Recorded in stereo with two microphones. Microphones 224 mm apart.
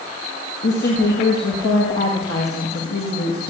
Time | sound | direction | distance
0.6 | a woman speaking | 75° left (ahead or behind) | 7.5 m